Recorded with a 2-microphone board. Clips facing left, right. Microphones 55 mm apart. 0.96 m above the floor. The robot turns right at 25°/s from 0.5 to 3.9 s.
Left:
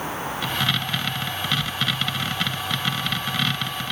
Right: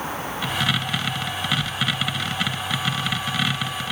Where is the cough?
No cough in this recording.